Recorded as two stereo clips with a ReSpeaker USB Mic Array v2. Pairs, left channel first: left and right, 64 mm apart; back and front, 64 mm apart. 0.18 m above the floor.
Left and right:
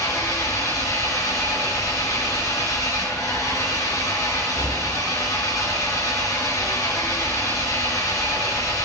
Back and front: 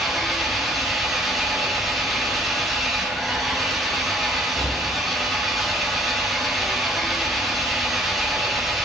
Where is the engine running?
85° left, 3 m.